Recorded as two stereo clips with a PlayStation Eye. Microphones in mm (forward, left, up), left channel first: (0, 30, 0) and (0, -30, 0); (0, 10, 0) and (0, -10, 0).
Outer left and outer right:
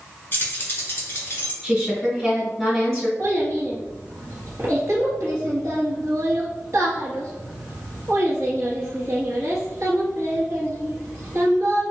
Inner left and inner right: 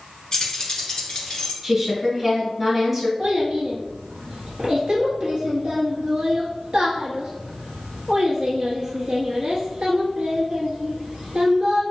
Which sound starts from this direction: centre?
A woman speaking, at 1.6 s.